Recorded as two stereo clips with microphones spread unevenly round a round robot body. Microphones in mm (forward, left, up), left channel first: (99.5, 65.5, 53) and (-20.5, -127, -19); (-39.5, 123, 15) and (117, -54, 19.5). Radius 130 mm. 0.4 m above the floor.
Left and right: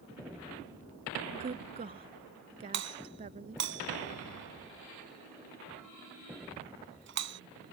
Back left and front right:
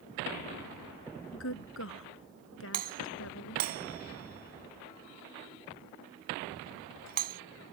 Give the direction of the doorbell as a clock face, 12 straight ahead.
3 o'clock.